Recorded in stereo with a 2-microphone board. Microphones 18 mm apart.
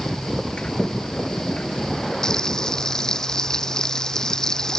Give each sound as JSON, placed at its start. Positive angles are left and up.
{"t": 0.6, "sound": "a sliding door", "side_deg": 85}
{"t": 2.2, "sound": "frying", "side_deg": 35}